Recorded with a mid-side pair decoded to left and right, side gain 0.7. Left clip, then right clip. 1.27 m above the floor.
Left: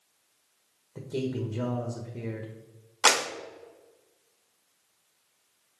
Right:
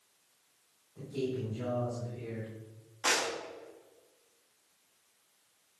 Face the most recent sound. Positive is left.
turn(degrees=50)